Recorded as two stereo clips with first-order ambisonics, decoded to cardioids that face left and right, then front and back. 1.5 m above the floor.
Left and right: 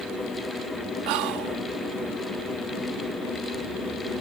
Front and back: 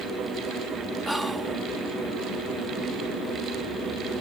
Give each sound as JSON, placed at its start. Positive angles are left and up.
{"t": 1.1, "sound": "whispering", "azimuth_deg": -95}